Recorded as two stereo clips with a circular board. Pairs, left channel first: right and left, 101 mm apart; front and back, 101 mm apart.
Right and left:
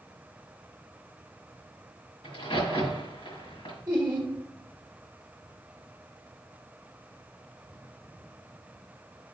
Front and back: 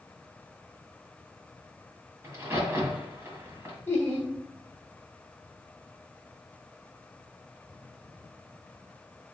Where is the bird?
No bird in this recording.